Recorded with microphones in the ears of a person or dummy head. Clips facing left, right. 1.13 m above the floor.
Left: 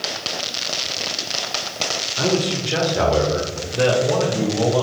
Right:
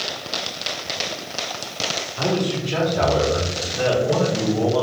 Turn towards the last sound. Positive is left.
turn(degrees=45)  # may be behind; listen again after turning